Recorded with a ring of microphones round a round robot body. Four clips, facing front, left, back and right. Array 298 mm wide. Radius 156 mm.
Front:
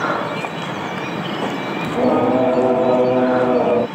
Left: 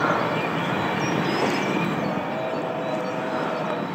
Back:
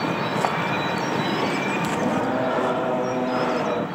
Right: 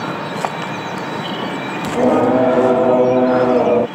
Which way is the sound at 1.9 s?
60° right.